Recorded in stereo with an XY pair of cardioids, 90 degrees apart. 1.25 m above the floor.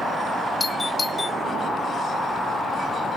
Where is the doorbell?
35° left.